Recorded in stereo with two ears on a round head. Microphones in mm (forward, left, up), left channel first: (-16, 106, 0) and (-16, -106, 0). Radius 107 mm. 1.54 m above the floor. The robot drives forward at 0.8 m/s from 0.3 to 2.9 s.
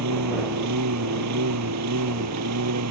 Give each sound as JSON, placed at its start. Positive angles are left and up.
{"t": 0.0, "sound": "a lawn mower", "side_deg": -85}